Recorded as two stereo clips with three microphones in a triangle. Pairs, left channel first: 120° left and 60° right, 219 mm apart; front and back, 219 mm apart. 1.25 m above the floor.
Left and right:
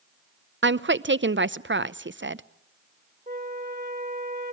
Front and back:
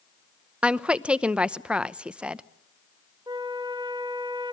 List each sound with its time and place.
0.6 s a woman speaking: 95° right, 0.7 m
3.3 s a flute: 110° right, 1.9 m